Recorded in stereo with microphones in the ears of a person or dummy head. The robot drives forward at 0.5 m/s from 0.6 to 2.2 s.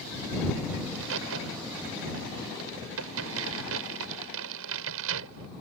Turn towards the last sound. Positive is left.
turn(degrees=-80)